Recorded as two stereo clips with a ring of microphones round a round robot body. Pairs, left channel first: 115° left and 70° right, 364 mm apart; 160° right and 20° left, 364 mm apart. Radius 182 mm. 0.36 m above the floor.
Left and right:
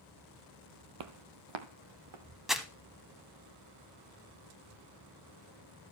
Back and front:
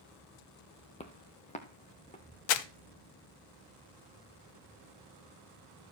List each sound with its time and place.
1.0 s footsteps: 85° right, 0.7 m
2.5 s crumpling: 155° right, 0.7 m